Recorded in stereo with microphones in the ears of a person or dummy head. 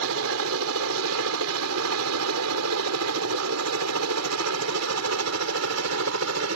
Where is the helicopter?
75° right (ahead or behind); by 6.6 s 65° right (ahead or behind).